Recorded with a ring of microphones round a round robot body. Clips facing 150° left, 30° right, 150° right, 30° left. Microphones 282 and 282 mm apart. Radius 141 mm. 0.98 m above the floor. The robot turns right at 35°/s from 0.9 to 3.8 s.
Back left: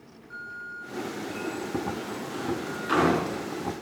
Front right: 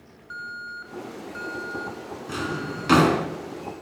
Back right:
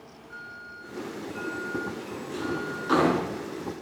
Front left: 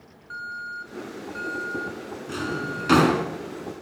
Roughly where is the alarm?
Ahead right.